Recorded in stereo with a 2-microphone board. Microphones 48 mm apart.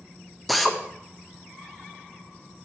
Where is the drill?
Centre (ahead or behind), 1.1 m.